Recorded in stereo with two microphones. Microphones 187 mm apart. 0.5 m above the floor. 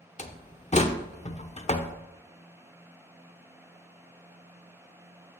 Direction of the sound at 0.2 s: 35° left (ahead or behind).